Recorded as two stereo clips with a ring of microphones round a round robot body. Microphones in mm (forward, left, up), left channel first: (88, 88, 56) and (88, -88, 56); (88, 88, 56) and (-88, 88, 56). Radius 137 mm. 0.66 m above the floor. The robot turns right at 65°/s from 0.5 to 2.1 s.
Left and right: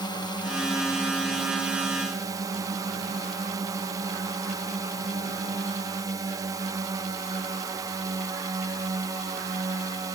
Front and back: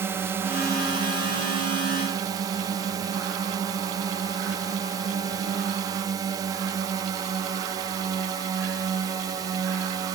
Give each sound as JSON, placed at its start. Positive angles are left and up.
{"t": 0.0, "sound": "a drone", "azimuth_deg": 120}